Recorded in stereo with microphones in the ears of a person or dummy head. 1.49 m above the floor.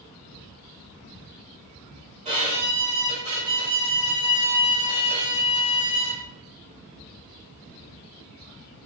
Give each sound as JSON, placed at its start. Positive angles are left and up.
{"t": 2.2, "sound": "a violin", "side_deg": -40, "distance_m": 1.3}